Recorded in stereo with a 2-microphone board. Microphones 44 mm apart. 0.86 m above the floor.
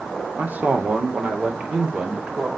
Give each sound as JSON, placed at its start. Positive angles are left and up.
{"t": 0.4, "sound": "a man speaking", "side_deg": -40, "distance_m": 2.5}